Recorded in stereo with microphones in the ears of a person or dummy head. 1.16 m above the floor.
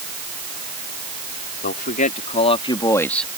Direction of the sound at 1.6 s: 55° left (ahead or behind).